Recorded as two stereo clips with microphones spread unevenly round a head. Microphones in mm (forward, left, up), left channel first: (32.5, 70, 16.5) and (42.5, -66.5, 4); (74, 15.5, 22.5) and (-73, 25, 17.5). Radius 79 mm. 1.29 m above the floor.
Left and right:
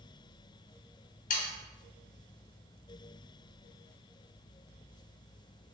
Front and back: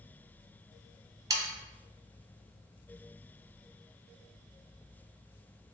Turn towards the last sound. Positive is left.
turn(degrees=115)